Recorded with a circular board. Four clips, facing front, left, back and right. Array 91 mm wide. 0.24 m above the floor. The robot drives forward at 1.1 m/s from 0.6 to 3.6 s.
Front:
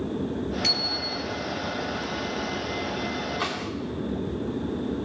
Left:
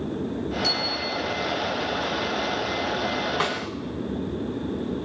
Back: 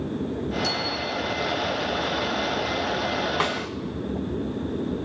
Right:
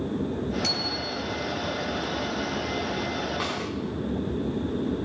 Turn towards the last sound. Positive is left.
turn(degrees=155)